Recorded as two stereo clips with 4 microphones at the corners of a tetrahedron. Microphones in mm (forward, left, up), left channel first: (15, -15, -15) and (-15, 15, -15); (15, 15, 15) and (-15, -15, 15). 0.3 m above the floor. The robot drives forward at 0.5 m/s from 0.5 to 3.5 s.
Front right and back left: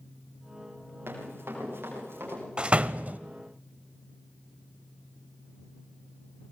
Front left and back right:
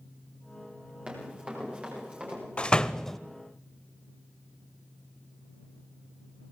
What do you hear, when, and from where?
1.1 s running footsteps: 160° left, 10 m
2.6 s a door slam: 85° left, 0.7 m; by 3.2 s 125° left, 0.7 m